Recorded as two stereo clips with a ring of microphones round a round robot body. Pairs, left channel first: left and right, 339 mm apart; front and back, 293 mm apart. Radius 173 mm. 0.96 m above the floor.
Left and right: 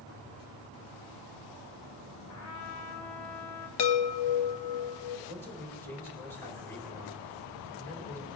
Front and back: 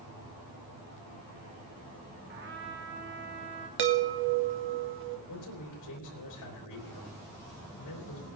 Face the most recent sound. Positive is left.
turn(degrees=5)